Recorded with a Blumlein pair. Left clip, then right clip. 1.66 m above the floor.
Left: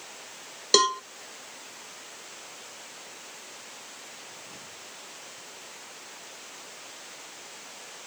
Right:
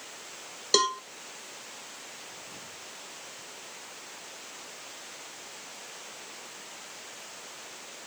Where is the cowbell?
10° left.